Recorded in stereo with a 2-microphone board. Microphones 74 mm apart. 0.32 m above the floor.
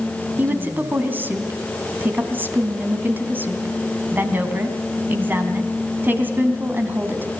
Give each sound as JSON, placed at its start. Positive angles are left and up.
{"t": 0.4, "sound": "a woman speaking", "side_deg": -25, "distance_m": 3.0}